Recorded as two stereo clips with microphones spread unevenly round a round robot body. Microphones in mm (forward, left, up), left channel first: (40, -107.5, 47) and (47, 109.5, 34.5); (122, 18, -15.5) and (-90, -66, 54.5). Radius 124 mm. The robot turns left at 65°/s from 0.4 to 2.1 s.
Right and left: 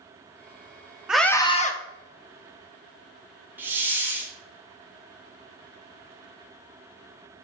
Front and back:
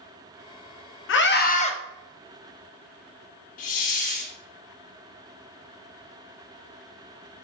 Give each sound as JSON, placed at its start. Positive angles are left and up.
{"t": 1.1, "sound": "a scream", "azimuth_deg": 5, "distance_m": 1.3}
{"t": 3.6, "sound": "a hiss", "azimuth_deg": 10, "distance_m": 1.4}